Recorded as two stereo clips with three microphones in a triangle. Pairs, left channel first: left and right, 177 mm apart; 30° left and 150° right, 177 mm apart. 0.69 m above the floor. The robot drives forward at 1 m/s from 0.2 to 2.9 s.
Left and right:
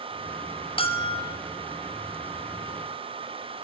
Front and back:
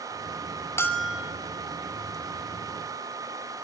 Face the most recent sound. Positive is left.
turn(degrees=170)